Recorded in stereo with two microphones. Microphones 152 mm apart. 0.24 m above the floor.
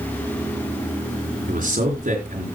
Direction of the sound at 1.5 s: 65° right (ahead or behind).